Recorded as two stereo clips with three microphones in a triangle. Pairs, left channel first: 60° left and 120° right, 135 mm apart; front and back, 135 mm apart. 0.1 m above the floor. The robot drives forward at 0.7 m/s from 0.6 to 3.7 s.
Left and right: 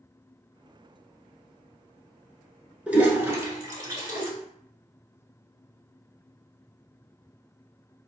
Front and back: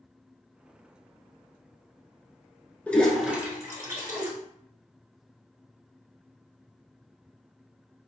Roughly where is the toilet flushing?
Ahead right.